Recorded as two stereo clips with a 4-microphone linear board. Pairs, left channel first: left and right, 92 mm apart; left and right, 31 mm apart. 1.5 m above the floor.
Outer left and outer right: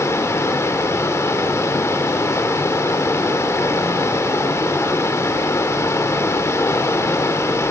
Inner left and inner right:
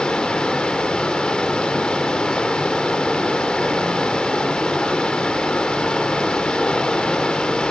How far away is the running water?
About 1.3 m.